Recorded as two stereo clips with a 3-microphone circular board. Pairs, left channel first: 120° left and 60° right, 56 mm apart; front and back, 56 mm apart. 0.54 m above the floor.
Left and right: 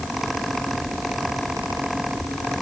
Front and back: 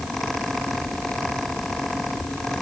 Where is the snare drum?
I don't hear a snare drum.